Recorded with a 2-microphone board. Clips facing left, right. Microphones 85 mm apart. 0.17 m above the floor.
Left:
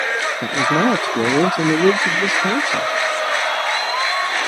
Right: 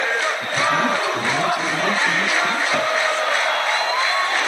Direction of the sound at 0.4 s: 75° left (ahead or behind).